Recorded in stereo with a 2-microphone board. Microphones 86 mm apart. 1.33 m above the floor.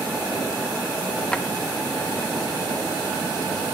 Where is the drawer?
15° left (ahead or behind), 0.6 m.